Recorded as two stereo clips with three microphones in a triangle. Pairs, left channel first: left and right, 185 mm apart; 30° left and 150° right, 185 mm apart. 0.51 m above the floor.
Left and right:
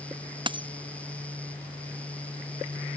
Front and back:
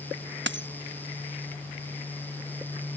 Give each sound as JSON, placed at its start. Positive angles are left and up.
{"t": 0.5, "sound": "a dropped coin", "azimuth_deg": -155}